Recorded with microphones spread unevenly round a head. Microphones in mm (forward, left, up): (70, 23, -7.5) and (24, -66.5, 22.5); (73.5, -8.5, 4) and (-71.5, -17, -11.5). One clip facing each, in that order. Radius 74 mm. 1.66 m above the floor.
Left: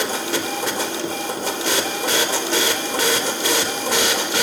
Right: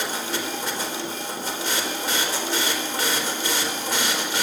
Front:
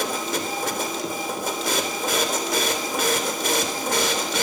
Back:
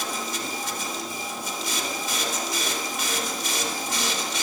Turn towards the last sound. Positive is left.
turn(degrees=40)